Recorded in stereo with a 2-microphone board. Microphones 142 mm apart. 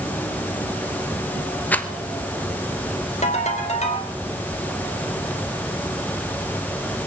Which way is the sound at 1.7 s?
10° left (ahead or behind).